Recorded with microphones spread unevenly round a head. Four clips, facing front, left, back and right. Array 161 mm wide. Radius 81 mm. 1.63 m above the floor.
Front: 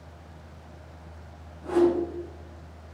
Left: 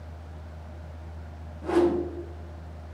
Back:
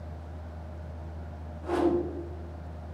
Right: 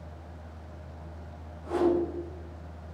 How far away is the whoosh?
About 3 m.